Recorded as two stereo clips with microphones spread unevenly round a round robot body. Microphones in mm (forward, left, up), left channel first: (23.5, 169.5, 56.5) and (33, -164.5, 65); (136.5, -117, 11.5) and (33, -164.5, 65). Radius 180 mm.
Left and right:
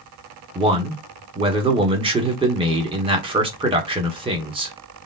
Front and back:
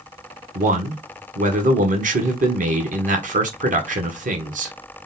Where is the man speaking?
160° right, 1.5 m.